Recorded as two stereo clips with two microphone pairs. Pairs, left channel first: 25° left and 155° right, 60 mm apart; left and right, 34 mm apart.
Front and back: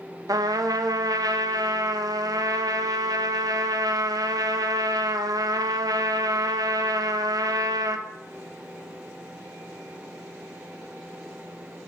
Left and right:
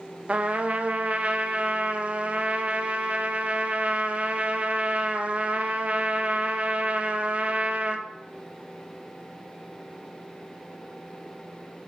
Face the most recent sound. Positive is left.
turn(degrees=-140)